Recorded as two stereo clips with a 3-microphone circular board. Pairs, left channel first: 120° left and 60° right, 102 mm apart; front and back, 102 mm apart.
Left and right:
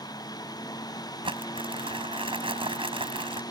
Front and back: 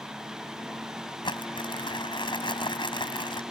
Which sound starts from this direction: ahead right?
Crumpling, at 1.2 s.